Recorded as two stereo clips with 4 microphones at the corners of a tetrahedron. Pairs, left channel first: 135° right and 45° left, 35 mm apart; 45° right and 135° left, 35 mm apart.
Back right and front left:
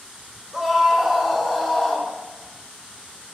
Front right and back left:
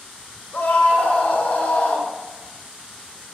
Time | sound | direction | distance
0.5 | a scream | 40° right | 2.5 m